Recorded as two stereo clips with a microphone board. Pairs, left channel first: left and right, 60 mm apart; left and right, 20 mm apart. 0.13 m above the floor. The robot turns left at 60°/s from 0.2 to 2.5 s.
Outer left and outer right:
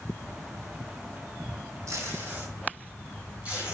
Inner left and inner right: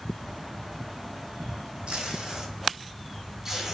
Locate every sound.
1.9 s tape being pulled: 60° right (ahead or behind), 0.9 m; by 3.8 s 25° right (ahead or behind), 0.9 m